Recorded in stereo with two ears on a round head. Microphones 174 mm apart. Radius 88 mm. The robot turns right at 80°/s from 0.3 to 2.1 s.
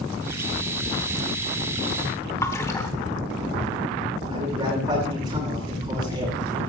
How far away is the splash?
About 1.2 m.